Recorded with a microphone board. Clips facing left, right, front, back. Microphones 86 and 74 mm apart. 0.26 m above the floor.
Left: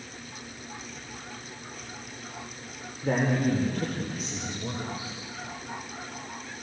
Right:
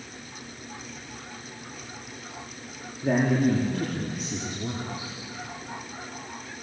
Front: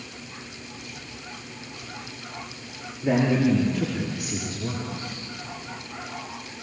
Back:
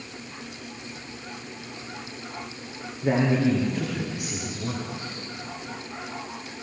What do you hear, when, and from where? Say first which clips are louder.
3.0 s a man speaking: right 3 dB, front 1 dB; 115° right, 6.5 m; by 5.1 s 105° right, 4.5 m